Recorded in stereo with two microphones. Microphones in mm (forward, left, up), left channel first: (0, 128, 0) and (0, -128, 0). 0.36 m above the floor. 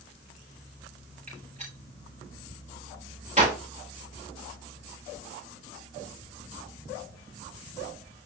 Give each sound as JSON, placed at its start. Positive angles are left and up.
{"t": 1.3, "sound": "a gunshot", "side_deg": -25, "distance_m": 9.5}